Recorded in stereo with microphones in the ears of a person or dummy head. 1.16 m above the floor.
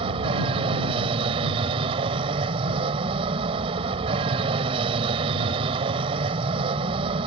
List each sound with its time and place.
0.0 s an aircraft: 35° right (ahead or behind)